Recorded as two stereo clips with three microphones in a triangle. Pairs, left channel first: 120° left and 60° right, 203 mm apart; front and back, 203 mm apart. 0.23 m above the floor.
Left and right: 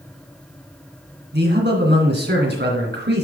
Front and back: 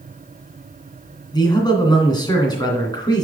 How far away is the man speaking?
About 2.5 m.